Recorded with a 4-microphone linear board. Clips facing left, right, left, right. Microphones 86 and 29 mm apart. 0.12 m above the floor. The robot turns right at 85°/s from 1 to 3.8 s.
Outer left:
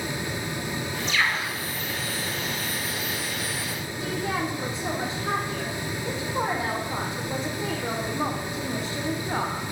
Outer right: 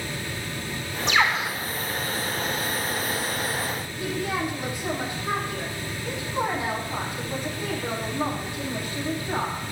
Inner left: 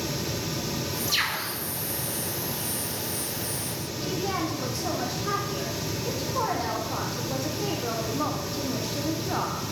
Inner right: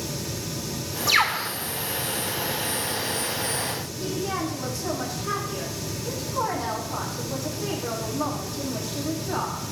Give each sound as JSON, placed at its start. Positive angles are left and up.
{"t": 1.1, "sound": "a bird", "azimuth_deg": -95, "distance_m": 3.0}
{"t": 4.0, "sound": "a woman speaking", "side_deg": 25, "distance_m": 5.5}